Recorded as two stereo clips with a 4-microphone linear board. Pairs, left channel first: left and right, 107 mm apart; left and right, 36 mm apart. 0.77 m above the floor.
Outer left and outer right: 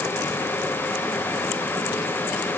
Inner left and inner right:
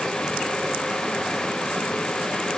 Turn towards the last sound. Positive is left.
No sound to turn to.